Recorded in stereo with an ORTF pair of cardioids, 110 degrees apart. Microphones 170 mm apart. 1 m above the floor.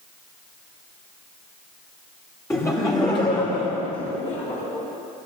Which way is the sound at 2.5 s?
15° left.